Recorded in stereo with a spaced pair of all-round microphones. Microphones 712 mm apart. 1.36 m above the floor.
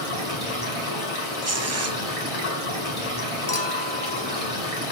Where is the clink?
40° left (ahead or behind), 0.8 m.